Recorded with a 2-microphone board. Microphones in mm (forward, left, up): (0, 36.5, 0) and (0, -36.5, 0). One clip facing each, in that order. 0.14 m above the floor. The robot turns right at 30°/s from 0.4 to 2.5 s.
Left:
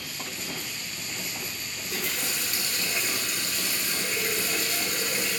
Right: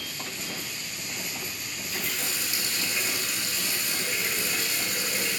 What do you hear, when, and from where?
1.8 s a running tap: 65° left (ahead or behind), 5 m; by 5.4 s 45° left (ahead or behind), 5 m